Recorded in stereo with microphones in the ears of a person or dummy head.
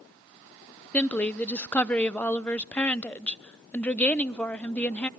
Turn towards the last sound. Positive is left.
turn(degrees=5)  # may be behind; listen again after turning